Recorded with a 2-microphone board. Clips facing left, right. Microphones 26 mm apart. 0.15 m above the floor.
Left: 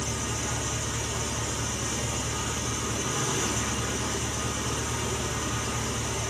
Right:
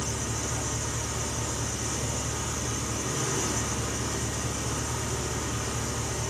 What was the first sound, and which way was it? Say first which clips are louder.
An engine running: left 1 dB; 70° left (ahead or behind).